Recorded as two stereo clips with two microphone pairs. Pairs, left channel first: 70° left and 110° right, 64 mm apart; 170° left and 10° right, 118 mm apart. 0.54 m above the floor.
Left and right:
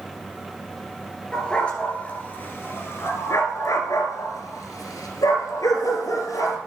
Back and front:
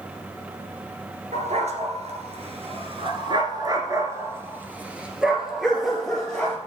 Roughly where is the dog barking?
Ahead.